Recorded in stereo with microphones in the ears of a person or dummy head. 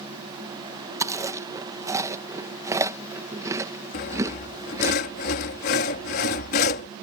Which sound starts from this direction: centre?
Chewing, at 1.0 s.